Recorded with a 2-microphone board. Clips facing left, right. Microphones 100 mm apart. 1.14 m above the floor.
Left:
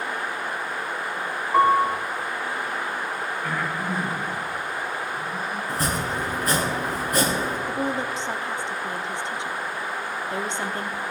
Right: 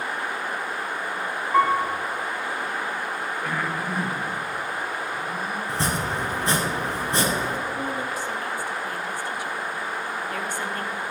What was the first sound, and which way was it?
A piano, 5° left (ahead or behind).